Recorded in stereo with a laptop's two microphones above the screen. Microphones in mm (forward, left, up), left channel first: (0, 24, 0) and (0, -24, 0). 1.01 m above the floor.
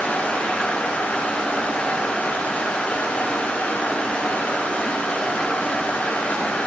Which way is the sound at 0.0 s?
30° left (ahead or behind).